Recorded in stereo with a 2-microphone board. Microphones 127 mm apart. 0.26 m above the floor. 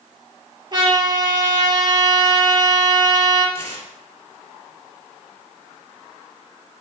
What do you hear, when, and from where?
0.7 s a trumpet: 35° right (ahead or behind), 4 m
3.5 s tearing paper: 50° right (ahead or behind), 2.5 m